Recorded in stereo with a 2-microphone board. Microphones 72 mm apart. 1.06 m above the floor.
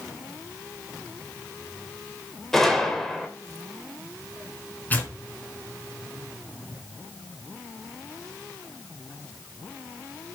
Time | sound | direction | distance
2.5 | a gunshot | 5° left (ahead or behind) | 2.5 m
4.9 | tearing paper | 25° left (ahead or behind) | 3 m